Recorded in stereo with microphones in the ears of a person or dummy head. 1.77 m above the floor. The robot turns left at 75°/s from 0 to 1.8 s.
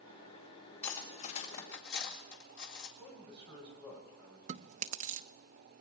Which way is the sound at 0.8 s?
10° left (ahead or behind).